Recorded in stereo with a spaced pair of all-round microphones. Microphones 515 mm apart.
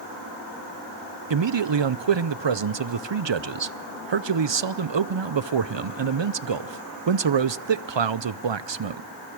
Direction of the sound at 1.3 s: 65° right (ahead or behind).